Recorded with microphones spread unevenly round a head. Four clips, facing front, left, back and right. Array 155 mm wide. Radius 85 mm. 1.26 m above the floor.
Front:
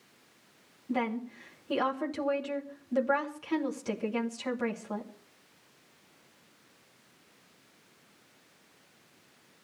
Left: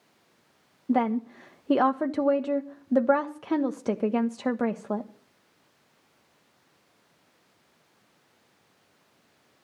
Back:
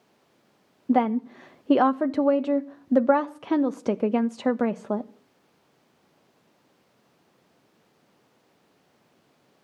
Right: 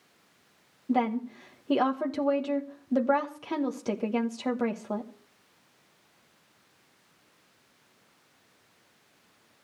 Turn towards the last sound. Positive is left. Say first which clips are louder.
# left 2 dB, back 10 dB
turn(degrees=165)